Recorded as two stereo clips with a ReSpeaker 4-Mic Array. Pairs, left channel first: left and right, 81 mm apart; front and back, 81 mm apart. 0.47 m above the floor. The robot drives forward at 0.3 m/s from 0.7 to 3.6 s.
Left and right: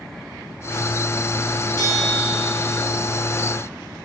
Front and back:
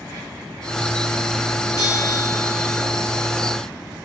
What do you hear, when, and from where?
1.8 s a bell: 45° left, 1.2 m; by 2.8 s 55° left, 1.1 m